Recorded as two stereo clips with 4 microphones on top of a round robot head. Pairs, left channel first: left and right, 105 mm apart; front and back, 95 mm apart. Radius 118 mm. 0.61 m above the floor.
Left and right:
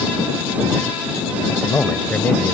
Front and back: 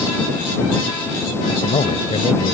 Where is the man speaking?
10° left.